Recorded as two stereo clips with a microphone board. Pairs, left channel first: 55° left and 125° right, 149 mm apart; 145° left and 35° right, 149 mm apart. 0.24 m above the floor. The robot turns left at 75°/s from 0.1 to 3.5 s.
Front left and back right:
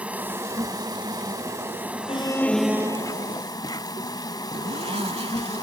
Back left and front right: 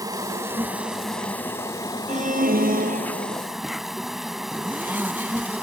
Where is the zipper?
105° right.